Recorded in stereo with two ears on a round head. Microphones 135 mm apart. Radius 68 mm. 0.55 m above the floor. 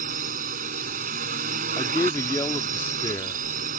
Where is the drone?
60° right (ahead or behind).